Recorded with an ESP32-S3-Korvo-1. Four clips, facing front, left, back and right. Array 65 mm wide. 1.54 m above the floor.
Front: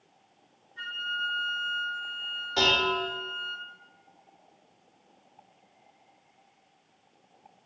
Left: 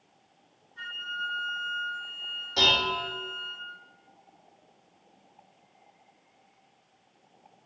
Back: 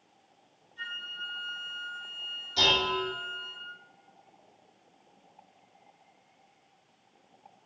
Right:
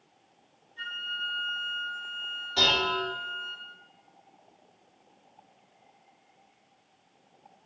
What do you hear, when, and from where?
0.8 s a flute: 30° left, 1.2 m
2.6 s dishes clattering: 10° left, 1.6 m